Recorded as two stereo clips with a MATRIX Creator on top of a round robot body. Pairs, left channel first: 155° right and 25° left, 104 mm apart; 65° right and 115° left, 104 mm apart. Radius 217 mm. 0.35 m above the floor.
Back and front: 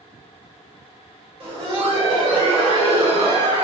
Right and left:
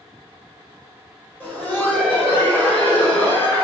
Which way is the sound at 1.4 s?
5° left.